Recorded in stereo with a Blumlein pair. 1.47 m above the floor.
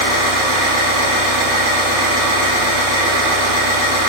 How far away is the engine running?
About 1.8 m.